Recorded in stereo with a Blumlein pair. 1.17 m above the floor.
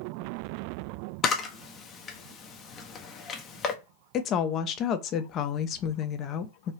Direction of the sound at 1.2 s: 25° left.